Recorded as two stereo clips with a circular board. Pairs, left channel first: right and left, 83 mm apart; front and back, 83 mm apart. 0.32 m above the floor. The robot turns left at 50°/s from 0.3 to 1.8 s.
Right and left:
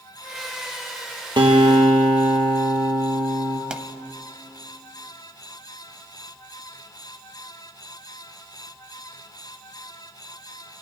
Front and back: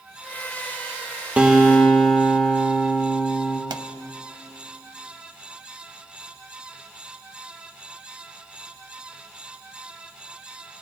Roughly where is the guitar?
Left.